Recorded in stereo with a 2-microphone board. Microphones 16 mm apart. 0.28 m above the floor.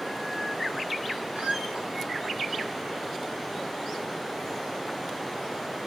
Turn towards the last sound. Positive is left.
turn(degrees=-70)  # may be behind; listen again after turning